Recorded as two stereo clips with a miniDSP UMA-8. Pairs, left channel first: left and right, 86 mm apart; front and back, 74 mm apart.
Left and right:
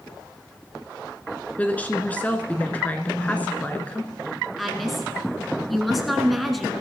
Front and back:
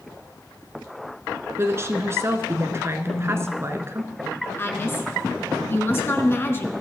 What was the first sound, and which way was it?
A woman speaking, 150° left.